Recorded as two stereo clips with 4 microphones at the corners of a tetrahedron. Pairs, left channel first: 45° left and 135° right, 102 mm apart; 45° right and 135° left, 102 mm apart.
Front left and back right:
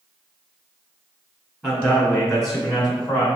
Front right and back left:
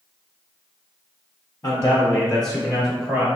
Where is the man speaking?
60° right, 1.9 m; by 3.3 s 105° left, 1.8 m.